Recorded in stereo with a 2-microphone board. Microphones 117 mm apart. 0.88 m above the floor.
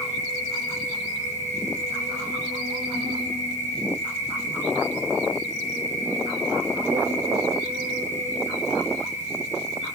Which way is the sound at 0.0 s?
85° right.